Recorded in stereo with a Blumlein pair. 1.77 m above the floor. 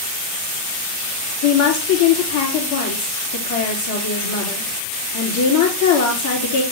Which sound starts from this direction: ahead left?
A woman speaking, at 1.4 s.